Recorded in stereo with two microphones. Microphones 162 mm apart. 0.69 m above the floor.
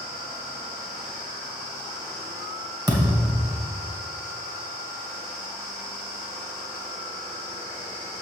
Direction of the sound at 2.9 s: 20° right (ahead or behind).